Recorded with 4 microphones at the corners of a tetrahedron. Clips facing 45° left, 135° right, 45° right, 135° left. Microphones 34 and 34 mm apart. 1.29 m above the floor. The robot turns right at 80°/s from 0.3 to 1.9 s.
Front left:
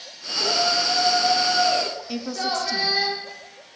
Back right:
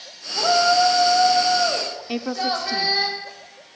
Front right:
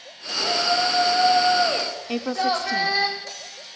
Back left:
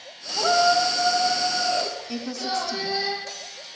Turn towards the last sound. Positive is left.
turn(degrees=-75)